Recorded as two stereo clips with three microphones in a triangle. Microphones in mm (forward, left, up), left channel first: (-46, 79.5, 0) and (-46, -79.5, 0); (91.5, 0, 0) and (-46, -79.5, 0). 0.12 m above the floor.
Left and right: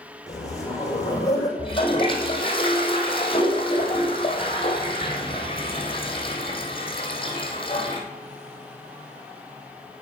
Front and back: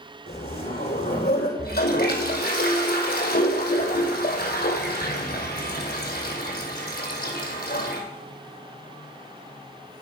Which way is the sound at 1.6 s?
35° left.